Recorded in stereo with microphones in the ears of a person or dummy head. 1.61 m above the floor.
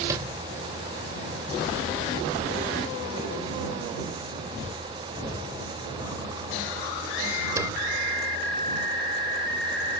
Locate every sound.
0.1 s a sliding door: 20° right (ahead or behind)